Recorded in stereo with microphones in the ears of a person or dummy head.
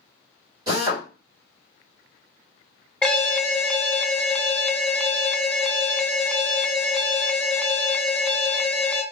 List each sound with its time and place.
0.7 s a drill: 25° right (ahead or behind), 1.7 m
3.0 s an alarm: 10° left (ahead or behind), 0.6 m